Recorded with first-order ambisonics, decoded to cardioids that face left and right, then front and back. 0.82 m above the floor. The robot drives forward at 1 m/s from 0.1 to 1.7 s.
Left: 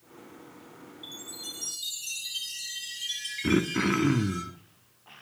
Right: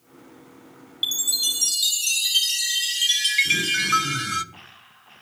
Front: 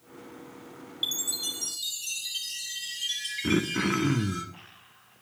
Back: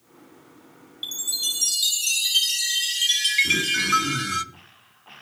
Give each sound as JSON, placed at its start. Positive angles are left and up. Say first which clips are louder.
{"t": 1.0, "sound": "a chime", "louder": "right 18 dB, back 4 dB", "azimuth_deg": -80, "distance_m": 0.6}
{"t": 3.4, "sound": "throat clearing", "louder": "right 6 dB, back 6 dB", "azimuth_deg": 60, "distance_m": 1.8}